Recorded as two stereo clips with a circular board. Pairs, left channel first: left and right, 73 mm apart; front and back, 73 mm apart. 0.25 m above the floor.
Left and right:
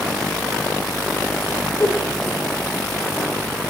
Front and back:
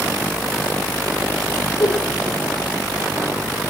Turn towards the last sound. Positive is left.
turn(degrees=35)